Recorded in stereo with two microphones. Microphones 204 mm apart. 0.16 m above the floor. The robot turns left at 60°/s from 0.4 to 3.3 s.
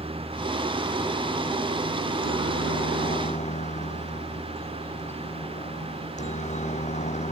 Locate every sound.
0.0 s a helicopter: 150° right; by 7.3 s 35° left